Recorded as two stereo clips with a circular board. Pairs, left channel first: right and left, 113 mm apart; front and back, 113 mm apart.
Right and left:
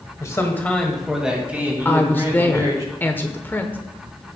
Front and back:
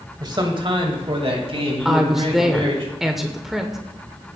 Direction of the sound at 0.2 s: 140° right.